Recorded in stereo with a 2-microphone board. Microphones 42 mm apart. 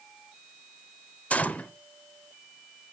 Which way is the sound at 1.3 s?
35° left (ahead or behind).